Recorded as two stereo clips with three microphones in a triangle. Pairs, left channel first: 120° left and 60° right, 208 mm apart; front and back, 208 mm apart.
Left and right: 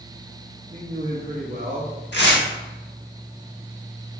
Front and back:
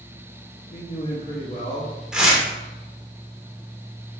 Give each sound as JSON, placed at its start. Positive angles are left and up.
{"t": 0.7, "sound": "a man speaking", "azimuth_deg": -30, "distance_m": 0.7}
{"t": 2.1, "sound": "tearing paper", "azimuth_deg": 95, "distance_m": 0.9}